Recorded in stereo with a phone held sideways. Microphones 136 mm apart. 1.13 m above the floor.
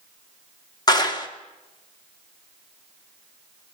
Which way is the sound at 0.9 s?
30° left (ahead or behind).